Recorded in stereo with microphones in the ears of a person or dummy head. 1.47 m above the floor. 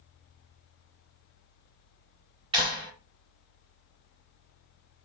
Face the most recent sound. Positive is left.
turn(degrees=-30)  # may be behind; listen again after turning